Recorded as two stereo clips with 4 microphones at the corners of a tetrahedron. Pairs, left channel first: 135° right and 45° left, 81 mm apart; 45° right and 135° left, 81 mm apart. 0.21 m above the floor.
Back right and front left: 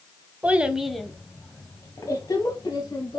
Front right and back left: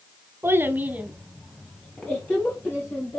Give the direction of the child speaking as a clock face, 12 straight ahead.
8 o'clock.